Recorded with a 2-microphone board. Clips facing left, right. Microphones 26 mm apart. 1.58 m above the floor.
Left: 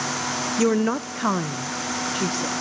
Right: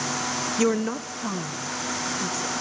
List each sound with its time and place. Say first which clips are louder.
0.6 s a woman speaking: left 3 dB; 10° right (ahead or behind), 0.5 m; by 2.5 s 70° left (ahead or behind), 2 m